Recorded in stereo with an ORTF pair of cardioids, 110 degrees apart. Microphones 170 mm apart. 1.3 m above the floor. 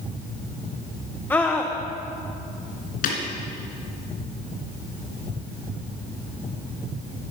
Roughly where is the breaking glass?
Ahead left.